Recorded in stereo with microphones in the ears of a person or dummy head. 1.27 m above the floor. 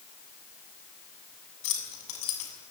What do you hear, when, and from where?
1.6 s keys jangling: 85° left, 7 m